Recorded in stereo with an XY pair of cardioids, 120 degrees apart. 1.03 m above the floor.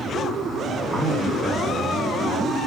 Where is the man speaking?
30° right, 8.5 m; by 2.6 s 20° right, 7.5 m.